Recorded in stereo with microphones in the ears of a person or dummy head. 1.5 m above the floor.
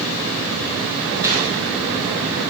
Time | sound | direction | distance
1.2 | a gunshot | 15° right (ahead or behind) | 2.5 m